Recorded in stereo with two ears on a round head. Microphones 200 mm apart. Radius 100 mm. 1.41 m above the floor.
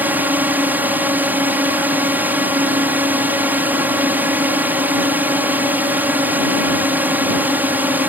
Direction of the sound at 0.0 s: 10° right (ahead or behind).